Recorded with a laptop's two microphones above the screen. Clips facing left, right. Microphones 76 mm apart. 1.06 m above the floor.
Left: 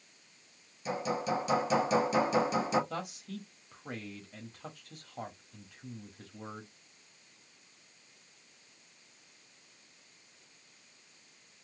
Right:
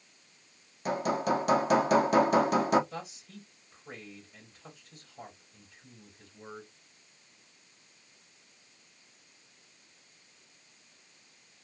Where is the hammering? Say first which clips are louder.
Right 4 dB; 60° right (ahead or behind), 1.0 m.